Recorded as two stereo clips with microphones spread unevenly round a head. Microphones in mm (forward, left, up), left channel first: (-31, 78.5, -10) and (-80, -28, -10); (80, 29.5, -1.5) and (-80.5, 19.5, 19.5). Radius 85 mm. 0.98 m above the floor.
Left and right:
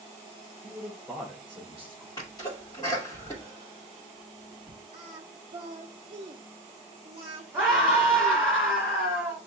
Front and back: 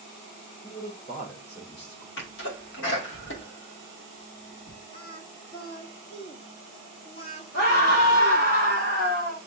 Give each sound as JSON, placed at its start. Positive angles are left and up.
{"t": 0.6, "sound": "a man speaking", "azimuth_deg": -30, "distance_m": 2.5}
{"t": 2.2, "sound": "a sneeze", "azimuth_deg": -5, "distance_m": 2.0}
{"t": 4.9, "sound": "singing", "azimuth_deg": -60, "distance_m": 0.6}
{"t": 7.5, "sound": "a scream", "azimuth_deg": -30, "distance_m": 2.5}